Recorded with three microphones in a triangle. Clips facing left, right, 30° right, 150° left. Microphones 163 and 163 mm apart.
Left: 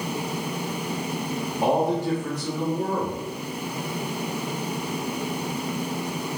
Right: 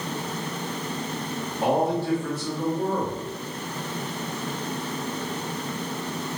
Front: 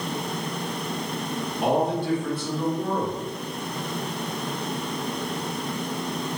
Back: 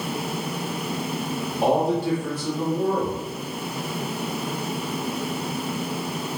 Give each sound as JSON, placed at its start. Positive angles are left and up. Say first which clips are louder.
{"t": 1.6, "sound": "a man speaking", "louder": "left 1 dB, back 2 dB", "azimuth_deg": 155, "distance_m": 1.1}